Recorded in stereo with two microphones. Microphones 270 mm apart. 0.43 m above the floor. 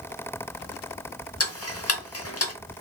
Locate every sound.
1.4 s ticking: 60° left (ahead or behind), 0.7 m